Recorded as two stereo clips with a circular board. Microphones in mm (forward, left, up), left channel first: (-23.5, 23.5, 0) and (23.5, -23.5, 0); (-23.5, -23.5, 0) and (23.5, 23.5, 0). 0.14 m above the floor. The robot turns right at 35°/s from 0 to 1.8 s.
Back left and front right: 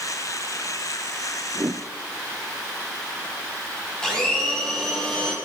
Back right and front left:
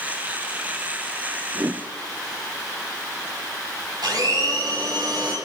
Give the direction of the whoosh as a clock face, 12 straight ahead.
12 o'clock.